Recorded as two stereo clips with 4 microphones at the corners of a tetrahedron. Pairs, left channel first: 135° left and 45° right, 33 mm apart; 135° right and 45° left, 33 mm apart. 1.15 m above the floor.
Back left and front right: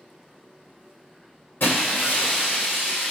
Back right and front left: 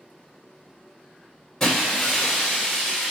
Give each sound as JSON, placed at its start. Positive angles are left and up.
{"t": 1.6, "sound": "breaking glass", "azimuth_deg": 150, "distance_m": 2.5}